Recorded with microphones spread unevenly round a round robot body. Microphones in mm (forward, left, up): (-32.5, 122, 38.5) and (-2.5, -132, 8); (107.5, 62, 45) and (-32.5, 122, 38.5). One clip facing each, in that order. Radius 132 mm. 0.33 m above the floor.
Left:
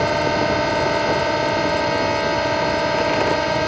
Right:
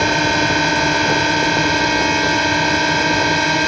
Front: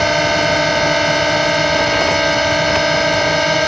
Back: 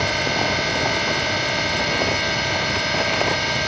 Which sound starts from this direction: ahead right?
A drone, at 0.0 s.